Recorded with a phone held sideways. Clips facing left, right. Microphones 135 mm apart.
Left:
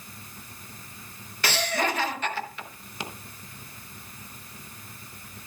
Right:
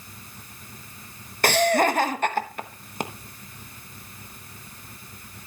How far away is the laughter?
About 1.1 m.